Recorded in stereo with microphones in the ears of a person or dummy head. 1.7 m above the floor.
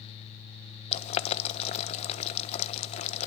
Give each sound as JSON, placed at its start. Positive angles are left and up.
{"t": 0.9, "sound": "boiling", "side_deg": 35, "distance_m": 1.3}